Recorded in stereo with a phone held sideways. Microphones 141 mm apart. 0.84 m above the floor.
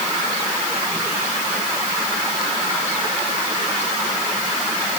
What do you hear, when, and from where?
Only background noise.